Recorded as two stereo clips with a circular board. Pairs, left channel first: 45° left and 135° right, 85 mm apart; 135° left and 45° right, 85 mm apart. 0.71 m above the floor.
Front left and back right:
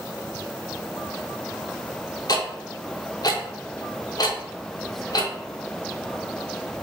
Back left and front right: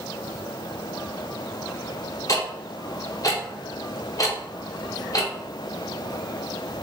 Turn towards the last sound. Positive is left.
turn(degrees=85)